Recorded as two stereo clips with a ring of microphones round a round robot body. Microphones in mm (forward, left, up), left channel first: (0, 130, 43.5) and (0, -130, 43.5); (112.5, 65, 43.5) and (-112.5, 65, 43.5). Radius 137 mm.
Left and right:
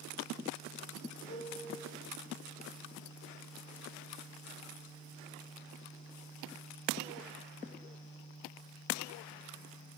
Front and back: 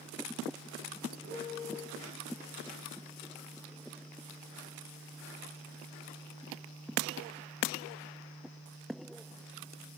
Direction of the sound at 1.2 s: 155° left.